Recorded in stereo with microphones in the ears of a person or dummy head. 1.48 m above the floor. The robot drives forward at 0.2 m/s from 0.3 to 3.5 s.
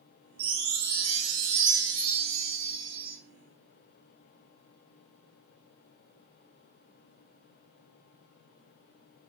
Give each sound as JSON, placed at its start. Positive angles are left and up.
{"t": 0.4, "sound": "a chime", "side_deg": -65, "distance_m": 1.0}